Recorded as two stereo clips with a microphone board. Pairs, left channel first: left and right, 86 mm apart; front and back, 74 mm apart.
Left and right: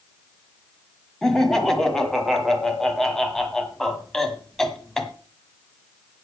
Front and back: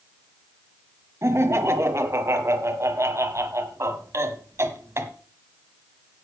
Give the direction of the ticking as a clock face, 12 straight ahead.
No ticking in this recording.